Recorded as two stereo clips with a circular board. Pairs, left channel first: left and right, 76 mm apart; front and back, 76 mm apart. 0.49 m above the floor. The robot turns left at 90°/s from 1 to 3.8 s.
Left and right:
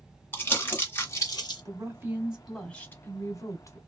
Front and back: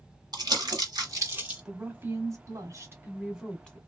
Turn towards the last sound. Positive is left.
turn(degrees=60)